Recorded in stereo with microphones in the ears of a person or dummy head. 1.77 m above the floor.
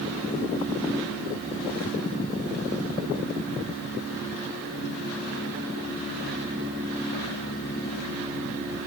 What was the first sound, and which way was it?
Only background noise.